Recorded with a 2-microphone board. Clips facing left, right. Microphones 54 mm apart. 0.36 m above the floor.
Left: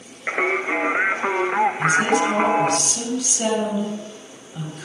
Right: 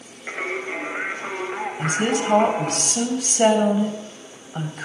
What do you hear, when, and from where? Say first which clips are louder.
0.3 s singing: left 6 dB; 40° left (ahead or behind), 0.7 m
1.8 s a woman speaking: left 4 dB; 40° right (ahead or behind), 2.5 m